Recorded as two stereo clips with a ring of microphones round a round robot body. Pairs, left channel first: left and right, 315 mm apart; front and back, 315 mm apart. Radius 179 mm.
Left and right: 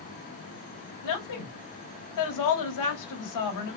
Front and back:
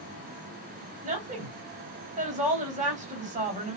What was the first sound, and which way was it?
A woman speaking, 110° left.